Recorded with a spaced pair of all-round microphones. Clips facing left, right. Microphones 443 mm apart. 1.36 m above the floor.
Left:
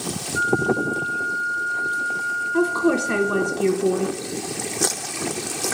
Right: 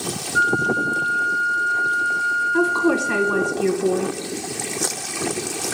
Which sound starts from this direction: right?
A flute, at 0.3 s.